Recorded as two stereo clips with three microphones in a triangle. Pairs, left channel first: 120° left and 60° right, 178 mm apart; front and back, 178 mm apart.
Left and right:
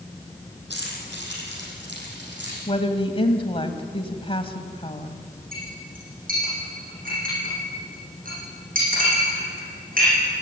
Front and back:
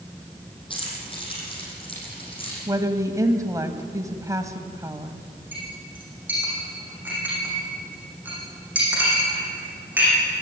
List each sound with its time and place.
0.7 s keys jangling: 60° right, 7 m
2.7 s a woman speaking: 130° left, 1.6 m
5.5 s a clink: 100° right, 9.5 m